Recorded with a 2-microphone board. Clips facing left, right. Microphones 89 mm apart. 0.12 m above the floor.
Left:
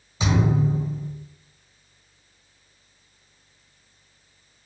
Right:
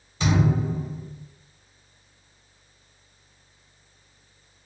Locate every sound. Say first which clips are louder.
0.2 s a thud: left 1 dB; 10° left (ahead or behind), 1.1 m